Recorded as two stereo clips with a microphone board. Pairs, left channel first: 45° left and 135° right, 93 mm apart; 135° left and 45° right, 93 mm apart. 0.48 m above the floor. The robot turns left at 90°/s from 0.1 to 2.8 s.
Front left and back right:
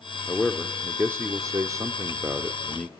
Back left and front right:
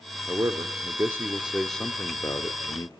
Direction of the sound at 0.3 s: 10° right.